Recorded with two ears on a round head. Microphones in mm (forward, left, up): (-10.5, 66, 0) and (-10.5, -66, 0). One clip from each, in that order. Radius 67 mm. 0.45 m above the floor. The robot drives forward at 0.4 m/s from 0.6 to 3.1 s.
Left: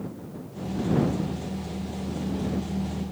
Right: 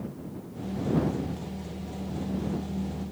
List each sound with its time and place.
Only background noise.